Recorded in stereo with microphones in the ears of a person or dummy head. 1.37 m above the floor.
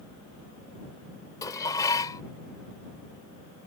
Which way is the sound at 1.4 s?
15° left (ahead or behind).